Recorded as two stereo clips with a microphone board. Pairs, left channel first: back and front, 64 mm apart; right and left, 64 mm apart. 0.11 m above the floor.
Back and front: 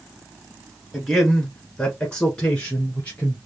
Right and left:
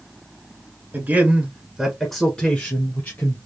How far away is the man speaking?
About 1.3 m.